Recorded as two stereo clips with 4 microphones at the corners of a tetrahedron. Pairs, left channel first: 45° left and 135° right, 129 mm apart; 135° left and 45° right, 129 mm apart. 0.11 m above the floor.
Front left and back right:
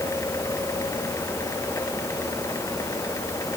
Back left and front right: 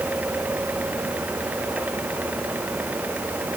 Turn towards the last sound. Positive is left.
No sound to turn to.